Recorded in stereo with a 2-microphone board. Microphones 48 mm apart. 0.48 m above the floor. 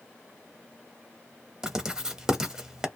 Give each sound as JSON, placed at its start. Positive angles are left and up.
{"t": 1.6, "sound": "writing", "side_deg": -10, "distance_m": 0.6}